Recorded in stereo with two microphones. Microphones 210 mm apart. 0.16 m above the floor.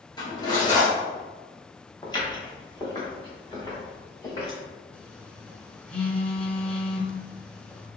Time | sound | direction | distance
0.2 | cutlery clinking | 20° left (ahead or behind) | 1.8 m
2.0 | footsteps | 20° left (ahead or behind) | 2.0 m
4.9 | a phone buzzing | 5° left (ahead or behind) | 0.6 m